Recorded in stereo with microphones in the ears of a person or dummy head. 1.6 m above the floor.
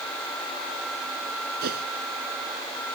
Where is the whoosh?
55° right (ahead or behind).